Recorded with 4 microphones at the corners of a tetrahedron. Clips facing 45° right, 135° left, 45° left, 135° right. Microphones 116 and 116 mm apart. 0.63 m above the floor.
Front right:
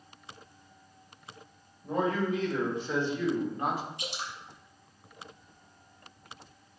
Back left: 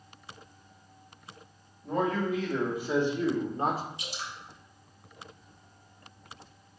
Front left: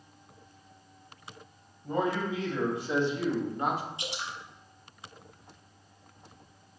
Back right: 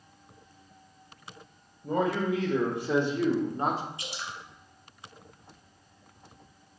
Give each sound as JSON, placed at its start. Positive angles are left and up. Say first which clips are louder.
{"t": 1.8, "sound": "a man speaking", "louder": "even, back right 2 dB", "azimuth_deg": -130, "distance_m": 2.5}
{"t": 4.0, "sound": "dripping", "louder": "front right 2 dB, front left 2 dB", "azimuth_deg": -20, "distance_m": 1.6}